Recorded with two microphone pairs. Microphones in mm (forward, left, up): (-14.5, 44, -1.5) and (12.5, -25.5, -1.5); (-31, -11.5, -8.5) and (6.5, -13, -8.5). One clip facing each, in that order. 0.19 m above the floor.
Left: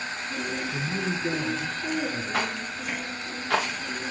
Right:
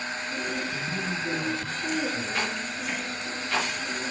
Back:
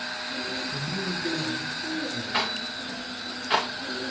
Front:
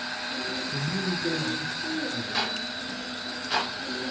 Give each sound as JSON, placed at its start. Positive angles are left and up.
{"t": 0.7, "sound": "a man speaking", "azimuth_deg": 75, "distance_m": 2.5}
{"t": 2.3, "sound": "a rattle", "azimuth_deg": 120, "distance_m": 7.5}